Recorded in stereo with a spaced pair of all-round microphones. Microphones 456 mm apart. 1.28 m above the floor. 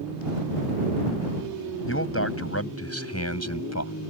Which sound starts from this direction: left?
A man speaking, at 1.9 s.